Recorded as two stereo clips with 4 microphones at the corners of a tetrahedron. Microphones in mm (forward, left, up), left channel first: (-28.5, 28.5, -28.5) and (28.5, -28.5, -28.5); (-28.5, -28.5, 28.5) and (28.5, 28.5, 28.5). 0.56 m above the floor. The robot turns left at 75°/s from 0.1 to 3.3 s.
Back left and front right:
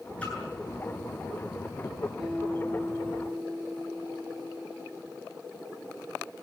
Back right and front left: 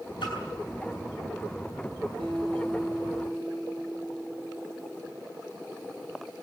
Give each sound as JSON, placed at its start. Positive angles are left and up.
{"t": 0.2, "sound": "a splash", "azimuth_deg": -150, "distance_m": 8.5}
{"t": 2.2, "sound": "a guitar", "azimuth_deg": 45, "distance_m": 8.0}